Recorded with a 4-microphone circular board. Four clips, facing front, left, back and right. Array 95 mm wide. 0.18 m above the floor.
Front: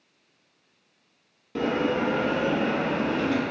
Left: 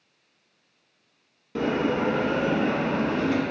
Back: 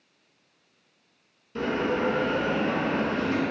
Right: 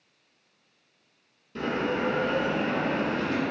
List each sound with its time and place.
1.6 s a bell: 50° left, 0.8 m